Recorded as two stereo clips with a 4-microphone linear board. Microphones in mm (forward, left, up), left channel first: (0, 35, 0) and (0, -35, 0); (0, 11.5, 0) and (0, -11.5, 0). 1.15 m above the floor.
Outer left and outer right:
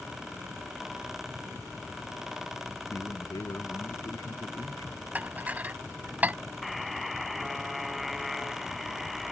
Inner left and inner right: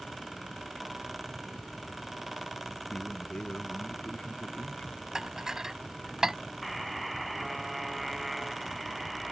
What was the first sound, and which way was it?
A man speaking, 65° left (ahead or behind).